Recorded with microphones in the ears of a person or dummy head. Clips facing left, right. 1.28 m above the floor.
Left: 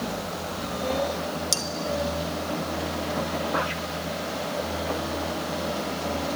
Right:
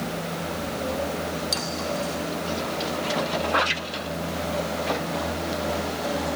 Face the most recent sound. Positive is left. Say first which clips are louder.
# right 2 dB
turn(degrees=35)  # may be behind; listen again after turning